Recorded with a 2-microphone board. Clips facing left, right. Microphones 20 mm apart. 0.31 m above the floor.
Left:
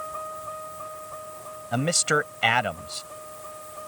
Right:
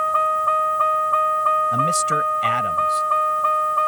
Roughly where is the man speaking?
Left.